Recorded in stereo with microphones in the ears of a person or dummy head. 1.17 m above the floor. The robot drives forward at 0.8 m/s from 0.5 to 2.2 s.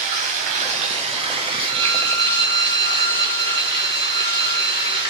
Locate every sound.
0.0 s running water: 35° right (ahead or behind), 1.3 m; by 5.1 s 20° right (ahead or behind), 2.5 m
1.7 s a violin: 55° right (ahead or behind), 0.8 m; by 5.0 s 45° right (ahead or behind), 0.9 m